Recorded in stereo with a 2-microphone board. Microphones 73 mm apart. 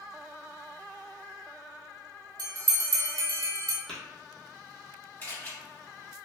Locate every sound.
2.4 s a bell: 65° right (ahead or behind), 0.7 m
3.9 s tapping: 10° left (ahead or behind), 1.4 m
5.2 s a camera shutter: 25° left (ahead or behind), 1.5 m